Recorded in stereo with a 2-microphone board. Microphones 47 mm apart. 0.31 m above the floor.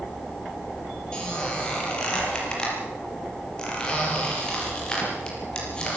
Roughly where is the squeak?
Left.